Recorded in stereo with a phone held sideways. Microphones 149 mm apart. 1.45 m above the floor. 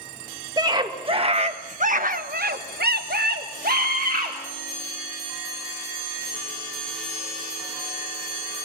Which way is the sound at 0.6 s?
25° right (ahead or behind).